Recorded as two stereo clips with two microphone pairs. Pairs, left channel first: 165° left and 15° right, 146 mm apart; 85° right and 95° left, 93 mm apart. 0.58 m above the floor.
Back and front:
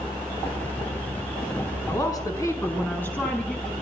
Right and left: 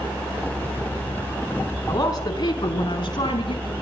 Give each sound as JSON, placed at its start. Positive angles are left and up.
{"t": 1.9, "sound": "a woman speaking", "azimuth_deg": -135, "distance_m": 5.5}